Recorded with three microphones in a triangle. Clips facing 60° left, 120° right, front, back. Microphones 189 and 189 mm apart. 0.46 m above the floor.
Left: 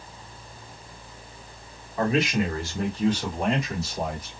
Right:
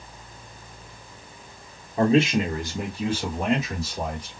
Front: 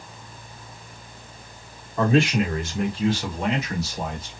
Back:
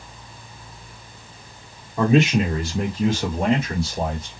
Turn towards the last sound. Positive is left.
turn(degrees=145)